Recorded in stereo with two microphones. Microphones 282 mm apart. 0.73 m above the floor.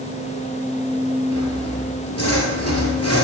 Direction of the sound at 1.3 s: 60° left (ahead or behind).